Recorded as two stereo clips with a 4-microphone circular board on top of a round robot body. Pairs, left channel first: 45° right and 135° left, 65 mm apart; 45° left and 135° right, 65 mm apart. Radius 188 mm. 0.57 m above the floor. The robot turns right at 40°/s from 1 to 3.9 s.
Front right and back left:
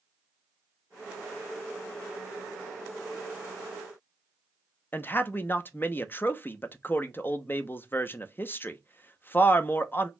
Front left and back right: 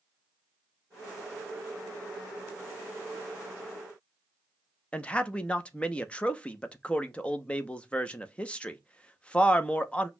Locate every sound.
4.9 s a man speaking: 15° right, 0.9 m